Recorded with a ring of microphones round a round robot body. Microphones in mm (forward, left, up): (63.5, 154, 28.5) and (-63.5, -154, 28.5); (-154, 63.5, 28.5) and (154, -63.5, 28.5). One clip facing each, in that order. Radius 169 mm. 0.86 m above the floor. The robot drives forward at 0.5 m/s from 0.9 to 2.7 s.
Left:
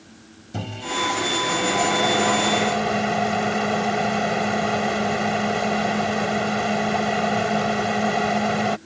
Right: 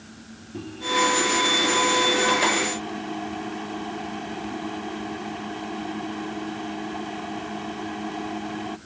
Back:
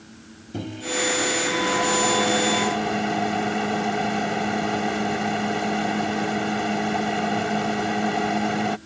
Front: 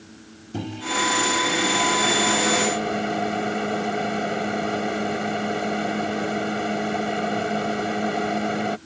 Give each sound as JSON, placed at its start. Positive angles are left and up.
{"t": 0.5, "sound": "a microwave", "azimuth_deg": 60}